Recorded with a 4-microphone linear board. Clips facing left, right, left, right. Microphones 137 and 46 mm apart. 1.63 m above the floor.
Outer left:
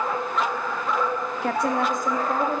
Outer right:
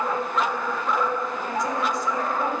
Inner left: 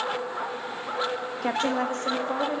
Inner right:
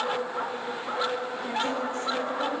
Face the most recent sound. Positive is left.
turn(degrees=35)  # may be behind; listen again after turning